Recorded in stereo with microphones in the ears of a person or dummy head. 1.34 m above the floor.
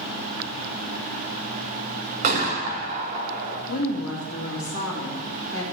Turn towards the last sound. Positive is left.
turn(degrees=45)  # may be behind; listen again after turning